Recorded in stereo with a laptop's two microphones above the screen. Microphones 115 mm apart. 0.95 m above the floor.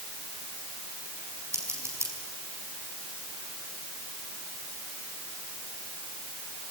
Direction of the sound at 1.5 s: 25° right (ahead or behind).